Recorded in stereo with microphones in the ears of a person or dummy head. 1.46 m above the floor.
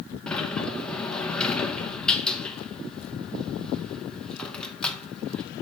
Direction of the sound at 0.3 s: 15° left (ahead or behind).